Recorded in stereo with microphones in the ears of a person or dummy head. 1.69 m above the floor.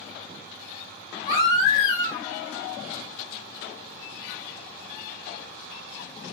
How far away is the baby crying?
About 1.7 m.